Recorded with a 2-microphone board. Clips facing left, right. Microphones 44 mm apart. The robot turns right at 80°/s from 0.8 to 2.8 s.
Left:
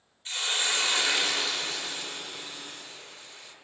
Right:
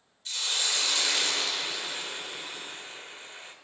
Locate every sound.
0.2 s a hiss: 125° left, 1.1 m; by 3.5 s 75° right, 1.1 m